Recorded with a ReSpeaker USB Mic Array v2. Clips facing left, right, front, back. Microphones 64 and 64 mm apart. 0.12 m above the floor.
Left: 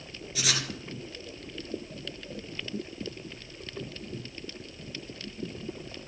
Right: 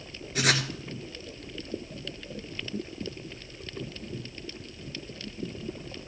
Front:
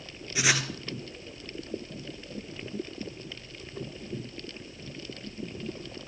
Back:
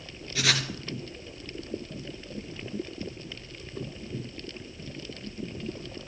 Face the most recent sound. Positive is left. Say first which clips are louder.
# right 6 dB, front 1 dB
turn(degrees=-70)